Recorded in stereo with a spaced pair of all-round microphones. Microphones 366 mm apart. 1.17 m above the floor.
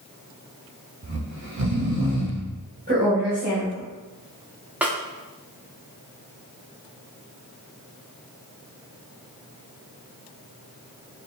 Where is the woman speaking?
25° right (ahead or behind), 1.5 m.